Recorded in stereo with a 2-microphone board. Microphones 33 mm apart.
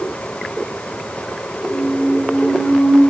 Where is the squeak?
80° left, 10 m.